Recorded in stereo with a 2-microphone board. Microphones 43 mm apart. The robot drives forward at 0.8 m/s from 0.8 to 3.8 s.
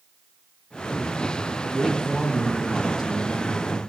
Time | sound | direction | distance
1.6 | a man speaking | centre (ahead or behind) | 6 m